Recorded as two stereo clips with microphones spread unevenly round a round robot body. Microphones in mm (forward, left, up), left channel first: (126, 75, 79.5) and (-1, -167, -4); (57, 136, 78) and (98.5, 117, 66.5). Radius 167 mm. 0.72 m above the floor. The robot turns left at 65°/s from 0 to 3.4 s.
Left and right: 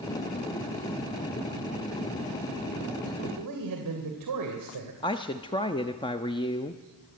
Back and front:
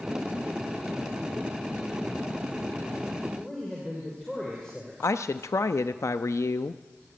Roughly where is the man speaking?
Right.